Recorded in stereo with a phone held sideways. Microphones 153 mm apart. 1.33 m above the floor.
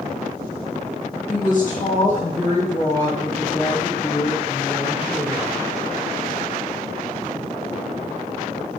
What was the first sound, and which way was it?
A woman speaking, 55° left (ahead or behind).